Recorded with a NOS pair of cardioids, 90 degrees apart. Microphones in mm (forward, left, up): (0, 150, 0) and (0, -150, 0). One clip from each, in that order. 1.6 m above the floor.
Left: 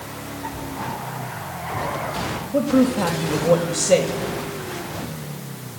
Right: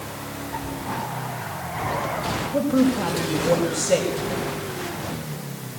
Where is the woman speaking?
35° left, 7 m.